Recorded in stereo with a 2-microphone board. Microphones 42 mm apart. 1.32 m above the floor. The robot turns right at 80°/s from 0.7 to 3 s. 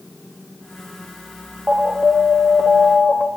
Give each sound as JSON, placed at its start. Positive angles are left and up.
{"t": 1.7, "sound": "an alarm", "azimuth_deg": -165, "distance_m": 2.5}